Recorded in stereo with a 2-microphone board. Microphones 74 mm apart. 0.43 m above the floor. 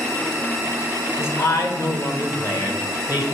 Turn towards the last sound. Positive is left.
turn(degrees=60)  # may be behind; listen again after turning